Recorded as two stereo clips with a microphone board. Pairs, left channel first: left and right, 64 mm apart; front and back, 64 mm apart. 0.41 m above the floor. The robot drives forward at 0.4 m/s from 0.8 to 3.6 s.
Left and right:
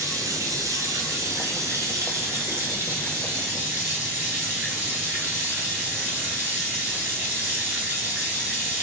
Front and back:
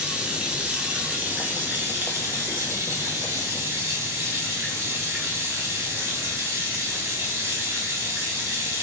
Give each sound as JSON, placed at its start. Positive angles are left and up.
{"t": 0.0, "sound": "running water", "azimuth_deg": -110, "distance_m": 0.9}